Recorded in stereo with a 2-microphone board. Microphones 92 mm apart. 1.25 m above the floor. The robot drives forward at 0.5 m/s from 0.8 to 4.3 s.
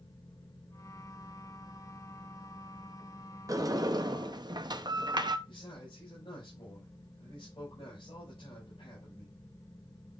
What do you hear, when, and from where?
3.5 s a sliding door: 40° right (ahead or behind), 0.8 m; by 5.4 s 50° right (ahead or behind), 0.7 m
5.5 s a man speaking: 60° left (ahead or behind), 5.5 m